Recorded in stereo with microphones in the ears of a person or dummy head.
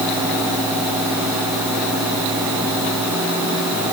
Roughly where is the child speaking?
No child speaking in this recording.